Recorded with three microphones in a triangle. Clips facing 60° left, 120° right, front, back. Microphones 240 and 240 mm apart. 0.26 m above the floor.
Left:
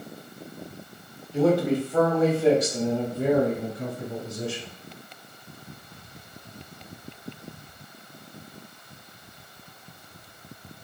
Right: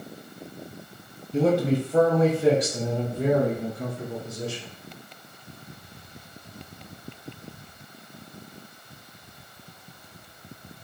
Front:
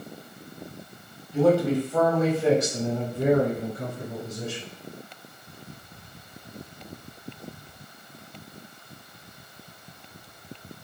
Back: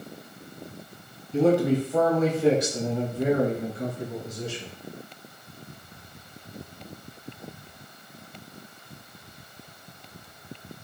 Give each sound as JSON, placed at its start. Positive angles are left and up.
{"t": 1.3, "sound": "a man speaking", "azimuth_deg": -150, "distance_m": 1.2}